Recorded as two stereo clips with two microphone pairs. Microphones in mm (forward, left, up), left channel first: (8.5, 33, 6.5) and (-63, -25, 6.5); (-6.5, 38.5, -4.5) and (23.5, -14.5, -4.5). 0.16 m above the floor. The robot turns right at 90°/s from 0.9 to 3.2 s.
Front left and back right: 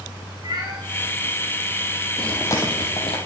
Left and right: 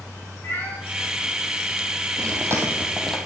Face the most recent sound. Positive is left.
turn(degrees=45)